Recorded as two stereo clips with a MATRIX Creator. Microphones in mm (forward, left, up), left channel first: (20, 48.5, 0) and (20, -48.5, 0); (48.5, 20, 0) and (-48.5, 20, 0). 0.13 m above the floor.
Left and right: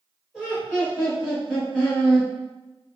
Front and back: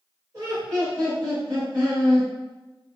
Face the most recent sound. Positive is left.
turn(degrees=175)